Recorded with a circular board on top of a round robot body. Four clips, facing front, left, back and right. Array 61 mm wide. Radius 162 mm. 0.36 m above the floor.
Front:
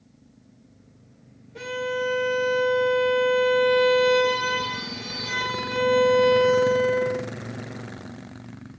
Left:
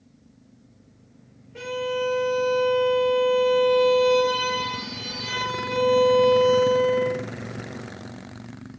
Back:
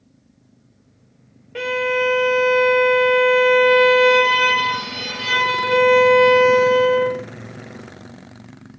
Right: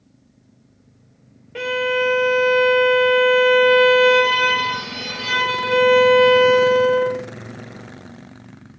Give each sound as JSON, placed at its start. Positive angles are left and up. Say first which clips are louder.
{"t": 1.6, "sound": "a violin", "louder": "right 7 dB, back 8 dB", "azimuth_deg": -145, "distance_m": 1.6}